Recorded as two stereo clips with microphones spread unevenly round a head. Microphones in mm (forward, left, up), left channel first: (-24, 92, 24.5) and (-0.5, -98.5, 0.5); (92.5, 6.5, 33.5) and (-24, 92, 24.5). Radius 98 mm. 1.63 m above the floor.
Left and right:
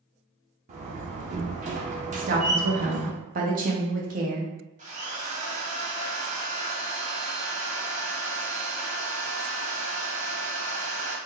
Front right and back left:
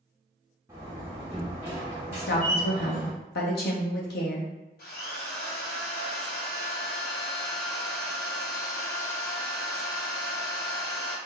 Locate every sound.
0.7 s a door slam: 140° right, 0.9 m
2.1 s a woman speaking: 35° right, 1.1 m
4.8 s a drill: 30° right, 1.5 m